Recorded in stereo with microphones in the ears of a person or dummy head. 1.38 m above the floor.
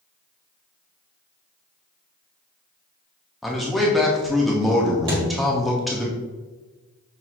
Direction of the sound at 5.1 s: 25° right (ahead or behind).